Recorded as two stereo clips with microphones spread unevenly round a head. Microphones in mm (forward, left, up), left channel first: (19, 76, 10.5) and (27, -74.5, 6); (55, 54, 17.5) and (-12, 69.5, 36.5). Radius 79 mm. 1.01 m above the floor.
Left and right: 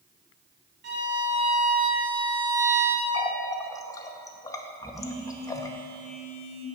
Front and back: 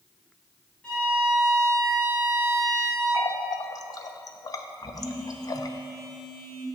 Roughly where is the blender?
I don't hear a blender.